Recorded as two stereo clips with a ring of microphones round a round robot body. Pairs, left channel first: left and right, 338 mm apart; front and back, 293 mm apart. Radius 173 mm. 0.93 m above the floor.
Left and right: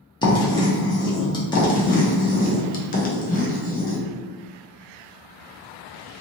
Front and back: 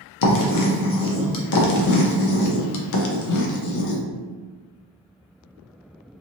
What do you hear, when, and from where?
0.2 s writing: 15° left, 0.6 m
1.6 s writing: 25° left, 0.6 m